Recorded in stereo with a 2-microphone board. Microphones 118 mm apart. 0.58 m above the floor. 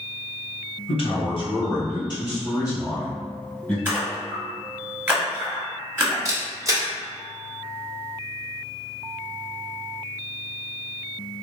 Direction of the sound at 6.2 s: 30° right (ahead or behind).